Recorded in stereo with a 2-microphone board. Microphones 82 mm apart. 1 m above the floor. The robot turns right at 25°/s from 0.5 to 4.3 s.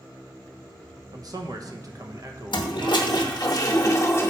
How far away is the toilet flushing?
About 0.8 m.